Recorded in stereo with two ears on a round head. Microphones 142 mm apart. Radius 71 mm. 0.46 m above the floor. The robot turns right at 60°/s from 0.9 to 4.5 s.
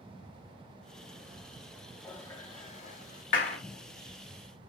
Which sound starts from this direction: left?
A clap, at 3.3 s.